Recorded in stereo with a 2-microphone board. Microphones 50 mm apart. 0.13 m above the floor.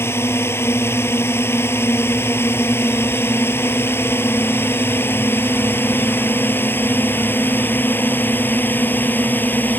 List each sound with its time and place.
0.0 s a drone: 60° left (ahead or behind); by 9.8 s 45° left (ahead or behind)